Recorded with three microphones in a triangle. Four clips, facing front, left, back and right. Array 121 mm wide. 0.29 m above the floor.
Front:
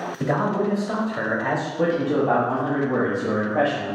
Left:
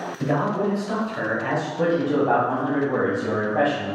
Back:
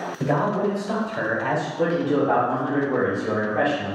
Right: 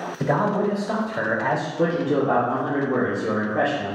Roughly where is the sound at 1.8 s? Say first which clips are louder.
Left 1 dB, even; ahead left.